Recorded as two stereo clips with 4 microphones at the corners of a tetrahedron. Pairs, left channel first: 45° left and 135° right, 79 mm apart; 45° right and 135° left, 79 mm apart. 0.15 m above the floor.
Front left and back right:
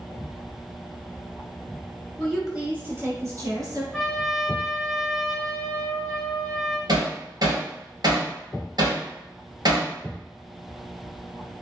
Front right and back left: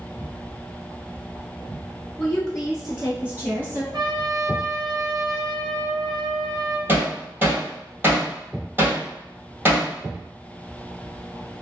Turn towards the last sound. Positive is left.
turn(degrees=-165)